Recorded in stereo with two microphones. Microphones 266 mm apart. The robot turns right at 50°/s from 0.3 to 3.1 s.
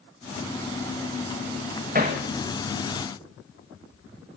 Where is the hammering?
30° right (ahead or behind), 2.5 m; by 2.2 s 15° right (ahead or behind), 2.5 m.